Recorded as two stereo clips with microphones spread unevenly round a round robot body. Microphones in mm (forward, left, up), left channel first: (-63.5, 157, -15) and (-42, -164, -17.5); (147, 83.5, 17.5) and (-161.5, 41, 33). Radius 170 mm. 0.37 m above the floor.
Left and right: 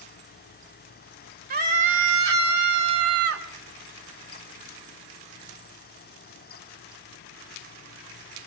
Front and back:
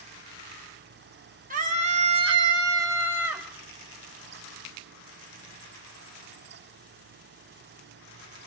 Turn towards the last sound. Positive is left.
turn(degrees=-85)